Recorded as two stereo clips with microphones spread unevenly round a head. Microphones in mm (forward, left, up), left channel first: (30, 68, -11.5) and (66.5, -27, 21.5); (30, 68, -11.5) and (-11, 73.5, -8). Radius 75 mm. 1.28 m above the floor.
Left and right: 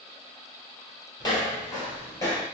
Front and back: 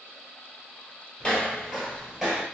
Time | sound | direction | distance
1.2 | footsteps | 50° left | 1.4 m